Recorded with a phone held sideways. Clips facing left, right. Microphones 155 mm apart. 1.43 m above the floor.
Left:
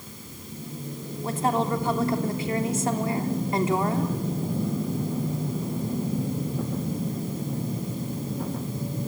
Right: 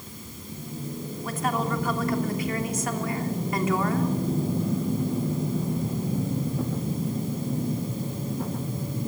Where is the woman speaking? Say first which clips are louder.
Left 3 dB; 30° left (ahead or behind), 3 m.